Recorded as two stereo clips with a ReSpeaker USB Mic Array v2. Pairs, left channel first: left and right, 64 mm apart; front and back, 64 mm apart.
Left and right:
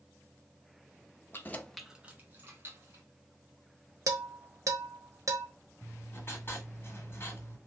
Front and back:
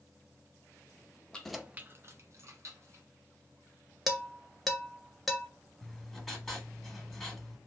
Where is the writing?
85° left, 1.3 m.